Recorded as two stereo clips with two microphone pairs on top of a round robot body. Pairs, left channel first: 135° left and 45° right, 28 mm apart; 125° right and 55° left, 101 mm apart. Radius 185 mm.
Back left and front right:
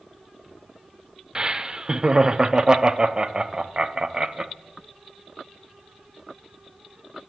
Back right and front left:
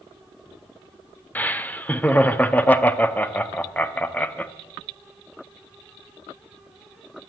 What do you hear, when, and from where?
1.4 s laughter: 60° right, 1.0 m